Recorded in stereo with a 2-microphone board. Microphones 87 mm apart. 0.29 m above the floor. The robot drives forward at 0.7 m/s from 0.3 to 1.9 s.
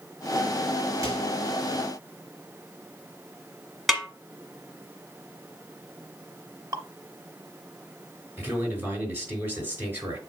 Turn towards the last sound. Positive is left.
turn(degrees=-25)  # may be behind; listen again after turning